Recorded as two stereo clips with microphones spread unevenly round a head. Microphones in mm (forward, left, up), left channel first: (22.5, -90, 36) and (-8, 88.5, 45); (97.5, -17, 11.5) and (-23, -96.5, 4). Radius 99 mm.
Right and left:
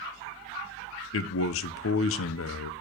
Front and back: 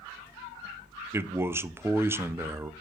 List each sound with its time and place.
1.1 s a man speaking: 70° right, 0.6 m